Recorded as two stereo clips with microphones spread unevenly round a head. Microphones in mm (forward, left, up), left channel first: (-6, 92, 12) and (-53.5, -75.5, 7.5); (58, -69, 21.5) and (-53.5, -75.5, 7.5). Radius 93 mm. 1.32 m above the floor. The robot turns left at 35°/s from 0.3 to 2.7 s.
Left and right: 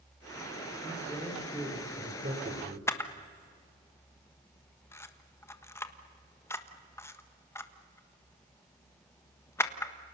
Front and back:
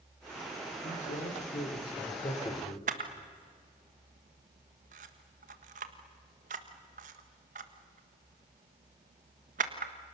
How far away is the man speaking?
About 4 m.